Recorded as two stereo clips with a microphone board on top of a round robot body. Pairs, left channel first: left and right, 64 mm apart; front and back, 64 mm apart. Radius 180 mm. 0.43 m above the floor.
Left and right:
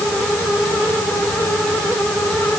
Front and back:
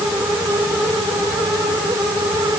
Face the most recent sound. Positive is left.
No sound to turn to.